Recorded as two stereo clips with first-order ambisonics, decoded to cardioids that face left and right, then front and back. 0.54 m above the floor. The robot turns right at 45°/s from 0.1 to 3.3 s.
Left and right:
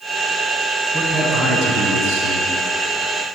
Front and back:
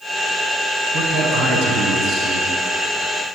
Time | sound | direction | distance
0.9 | a man speaking | 175° right | 4.5 m